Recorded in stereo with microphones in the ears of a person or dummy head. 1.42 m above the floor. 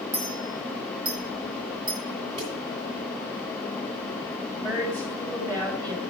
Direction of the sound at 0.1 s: 40° right (ahead or behind).